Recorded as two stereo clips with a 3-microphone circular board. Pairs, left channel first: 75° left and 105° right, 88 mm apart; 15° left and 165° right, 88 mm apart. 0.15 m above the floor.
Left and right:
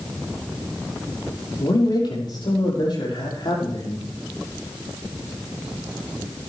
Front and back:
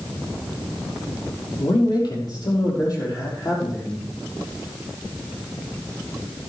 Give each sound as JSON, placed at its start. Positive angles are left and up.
{"t": 1.6, "sound": "a man speaking", "azimuth_deg": 45, "distance_m": 5.5}